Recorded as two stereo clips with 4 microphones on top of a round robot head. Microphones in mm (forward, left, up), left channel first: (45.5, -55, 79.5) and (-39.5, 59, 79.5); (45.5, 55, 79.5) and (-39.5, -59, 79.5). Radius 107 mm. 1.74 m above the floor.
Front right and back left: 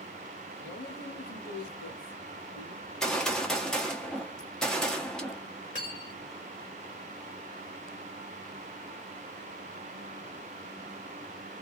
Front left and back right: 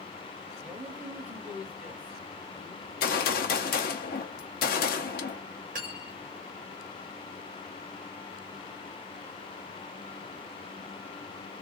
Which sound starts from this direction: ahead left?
A gunshot, at 2.8 s.